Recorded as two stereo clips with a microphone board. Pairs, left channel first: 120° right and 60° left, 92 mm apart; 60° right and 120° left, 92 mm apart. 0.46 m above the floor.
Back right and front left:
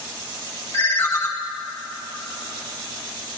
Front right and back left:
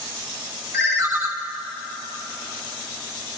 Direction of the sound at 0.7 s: 175° left.